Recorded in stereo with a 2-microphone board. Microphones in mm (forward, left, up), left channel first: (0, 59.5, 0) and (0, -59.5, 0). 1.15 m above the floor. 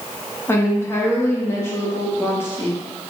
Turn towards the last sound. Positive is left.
turn(degrees=20)  # may be behind; listen again after turning